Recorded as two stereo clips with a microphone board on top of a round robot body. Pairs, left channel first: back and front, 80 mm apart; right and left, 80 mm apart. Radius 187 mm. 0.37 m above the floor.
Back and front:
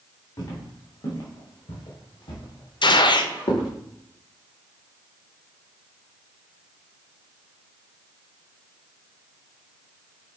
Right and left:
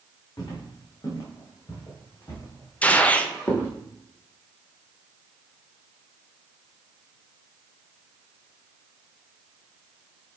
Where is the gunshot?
160° right, 0.8 m.